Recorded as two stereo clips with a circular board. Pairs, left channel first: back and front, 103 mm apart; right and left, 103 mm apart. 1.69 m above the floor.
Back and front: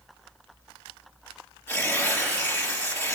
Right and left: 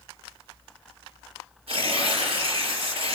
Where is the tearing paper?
115° left, 4.5 m.